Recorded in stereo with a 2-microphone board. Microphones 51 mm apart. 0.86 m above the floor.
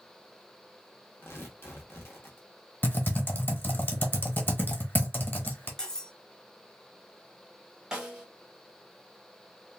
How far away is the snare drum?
About 1.2 m.